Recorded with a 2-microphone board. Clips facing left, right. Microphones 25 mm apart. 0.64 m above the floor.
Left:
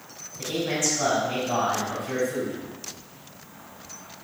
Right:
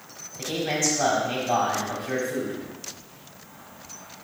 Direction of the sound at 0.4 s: 40° right (ahead or behind).